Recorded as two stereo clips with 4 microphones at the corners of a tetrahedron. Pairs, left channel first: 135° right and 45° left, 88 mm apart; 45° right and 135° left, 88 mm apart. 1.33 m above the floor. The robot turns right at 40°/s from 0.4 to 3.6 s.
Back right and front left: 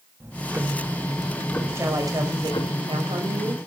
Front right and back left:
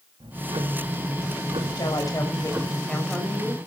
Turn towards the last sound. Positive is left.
turn(degrees=60)